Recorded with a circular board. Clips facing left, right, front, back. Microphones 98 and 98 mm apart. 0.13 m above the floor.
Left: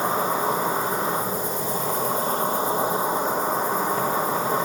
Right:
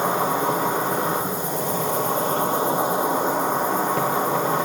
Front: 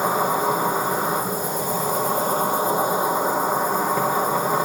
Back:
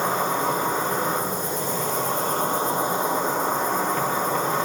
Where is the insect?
80° right, 2.5 m.